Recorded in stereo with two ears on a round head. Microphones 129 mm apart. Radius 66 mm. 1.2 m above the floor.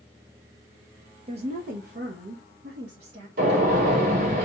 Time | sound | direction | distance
1.3 | a woman speaking | 40° right (ahead or behind) | 0.5 m
3.4 | a gunshot | 70° right (ahead or behind) | 2.5 m